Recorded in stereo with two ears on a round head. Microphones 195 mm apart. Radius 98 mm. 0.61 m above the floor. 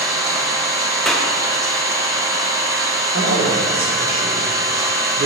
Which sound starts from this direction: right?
A man speaking, at 3.1 s.